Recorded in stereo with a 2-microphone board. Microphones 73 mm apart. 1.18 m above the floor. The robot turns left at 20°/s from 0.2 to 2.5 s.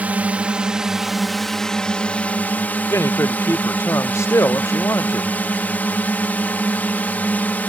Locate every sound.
0.0 s a drone: 160° right; by 7.7 s 155° left
2.9 s a man speaking: 40° left (ahead or behind)